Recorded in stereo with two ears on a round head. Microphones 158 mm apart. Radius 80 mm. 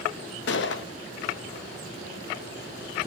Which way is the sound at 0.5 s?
70° left (ahead or behind).